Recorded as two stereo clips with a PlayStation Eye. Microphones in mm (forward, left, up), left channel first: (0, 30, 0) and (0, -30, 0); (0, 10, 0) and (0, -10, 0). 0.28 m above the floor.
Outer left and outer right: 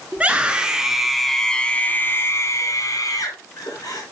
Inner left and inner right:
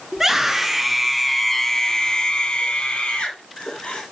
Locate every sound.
0.1 s a scream: 20° right (ahead or behind), 3.5 m; by 4.0 s 75° left (ahead or behind), 3.5 m